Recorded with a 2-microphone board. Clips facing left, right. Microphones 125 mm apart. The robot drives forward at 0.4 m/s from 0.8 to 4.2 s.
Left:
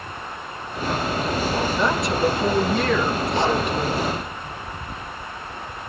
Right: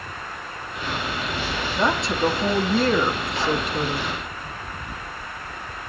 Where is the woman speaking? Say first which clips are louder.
Right 2 dB; 25° right (ahead or behind), 3 m; by 4.1 s 40° right (ahead or behind), 2 m.